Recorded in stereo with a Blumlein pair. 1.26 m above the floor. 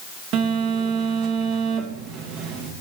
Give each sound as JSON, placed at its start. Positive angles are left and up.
{"t": 0.3, "sound": "a phone buzzing", "azimuth_deg": -40, "distance_m": 1.0}